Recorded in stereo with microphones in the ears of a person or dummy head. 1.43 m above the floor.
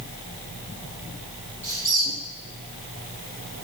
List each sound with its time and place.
1.6 s a squeak: 10° left (ahead or behind), 3.5 m